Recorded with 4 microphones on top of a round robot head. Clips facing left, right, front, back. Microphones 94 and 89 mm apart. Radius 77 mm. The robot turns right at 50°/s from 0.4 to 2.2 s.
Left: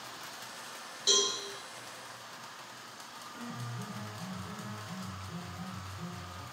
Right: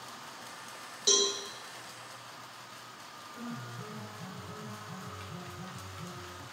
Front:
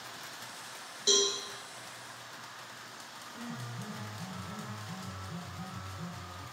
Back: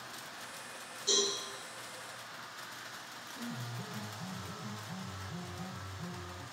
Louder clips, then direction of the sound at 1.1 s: Right 2 dB, front 4 dB; 30° right.